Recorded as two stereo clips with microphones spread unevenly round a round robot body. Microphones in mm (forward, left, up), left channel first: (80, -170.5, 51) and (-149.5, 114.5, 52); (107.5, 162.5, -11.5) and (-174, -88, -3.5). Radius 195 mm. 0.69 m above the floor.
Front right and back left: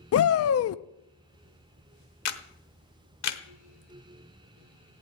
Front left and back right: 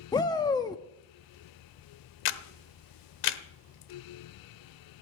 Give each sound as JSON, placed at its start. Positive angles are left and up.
{"t": 0.1, "sound": "a shout", "azimuth_deg": -30, "distance_m": 0.5}
{"t": 2.2, "sound": "a camera shutter", "azimuth_deg": 0, "distance_m": 1.0}